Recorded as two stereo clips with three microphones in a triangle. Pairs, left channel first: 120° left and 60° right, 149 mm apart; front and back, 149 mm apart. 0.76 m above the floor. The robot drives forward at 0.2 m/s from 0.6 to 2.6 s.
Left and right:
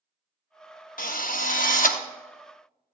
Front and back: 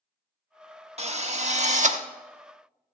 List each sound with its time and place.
1.0 s a drill: 135° left, 0.8 m; by 2.0 s 145° left, 1.0 m